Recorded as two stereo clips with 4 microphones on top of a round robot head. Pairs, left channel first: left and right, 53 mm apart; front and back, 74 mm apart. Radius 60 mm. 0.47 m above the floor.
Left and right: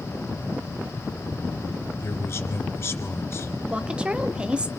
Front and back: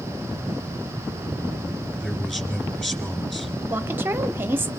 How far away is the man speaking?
About 2.0 m.